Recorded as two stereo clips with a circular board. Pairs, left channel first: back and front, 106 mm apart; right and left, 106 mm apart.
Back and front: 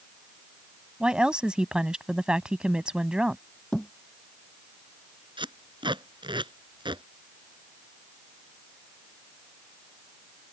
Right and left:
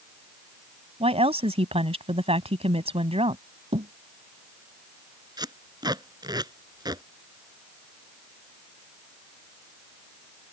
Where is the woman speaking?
80° left.